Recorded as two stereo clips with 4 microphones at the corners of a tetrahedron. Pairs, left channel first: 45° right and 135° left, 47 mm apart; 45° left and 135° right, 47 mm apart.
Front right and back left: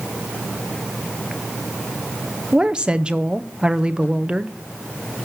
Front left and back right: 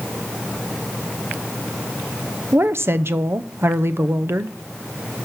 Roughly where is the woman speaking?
Behind.